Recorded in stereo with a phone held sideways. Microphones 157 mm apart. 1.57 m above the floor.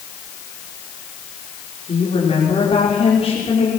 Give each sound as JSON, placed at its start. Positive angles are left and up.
{"t": 1.9, "sound": "a woman speaking", "side_deg": 40, "distance_m": 4.0}